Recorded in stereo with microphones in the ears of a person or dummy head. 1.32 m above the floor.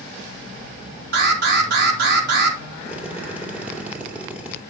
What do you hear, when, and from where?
1.1 s an alarm: 60° right (ahead or behind), 3.5 m
2.9 s a drill: 10° right (ahead or behind), 2.5 m